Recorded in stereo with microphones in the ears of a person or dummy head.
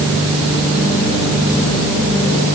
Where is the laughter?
No laughter in this recording.